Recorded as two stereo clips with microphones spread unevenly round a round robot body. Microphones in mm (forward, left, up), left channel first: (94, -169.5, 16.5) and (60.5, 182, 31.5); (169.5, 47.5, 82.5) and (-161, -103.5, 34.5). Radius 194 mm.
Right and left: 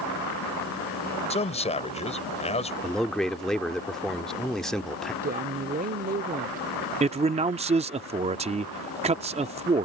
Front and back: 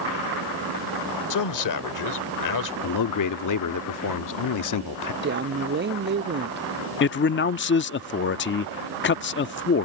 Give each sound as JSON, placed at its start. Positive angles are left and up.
{"t": 1.3, "sound": "a man speaking", "azimuth_deg": -15}
{"t": 2.8, "sound": "a man speaking", "azimuth_deg": 0}
{"t": 5.2, "sound": "a woman speaking", "azimuth_deg": 160}
{"t": 7.0, "sound": "a man speaking", "azimuth_deg": 45}